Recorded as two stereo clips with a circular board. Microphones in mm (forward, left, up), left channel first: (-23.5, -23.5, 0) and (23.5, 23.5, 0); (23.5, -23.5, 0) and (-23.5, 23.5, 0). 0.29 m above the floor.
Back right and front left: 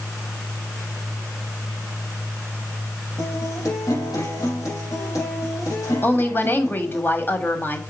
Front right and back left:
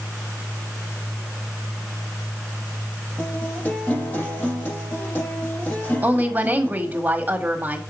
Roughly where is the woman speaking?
Behind.